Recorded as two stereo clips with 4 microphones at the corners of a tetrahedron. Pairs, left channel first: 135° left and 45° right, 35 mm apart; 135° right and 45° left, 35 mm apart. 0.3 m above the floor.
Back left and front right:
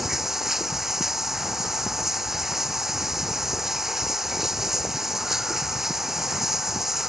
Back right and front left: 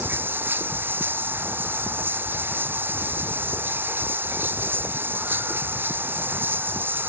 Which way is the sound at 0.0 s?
35° left.